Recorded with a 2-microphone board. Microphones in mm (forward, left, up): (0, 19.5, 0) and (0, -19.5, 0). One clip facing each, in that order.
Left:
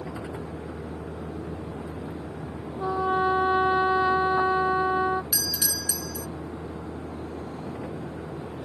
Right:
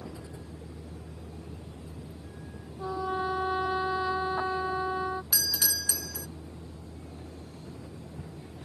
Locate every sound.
0.0 s a vehicle: 60° left (ahead or behind)
2.8 s a trumpet: 25° left (ahead or behind)
5.3 s a doorbell: centre (ahead or behind)